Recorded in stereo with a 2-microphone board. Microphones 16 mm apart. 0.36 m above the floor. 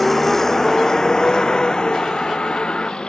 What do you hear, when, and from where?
0.0 s a vehicle: 10° left (ahead or behind); by 3.1 s 65° left (ahead or behind)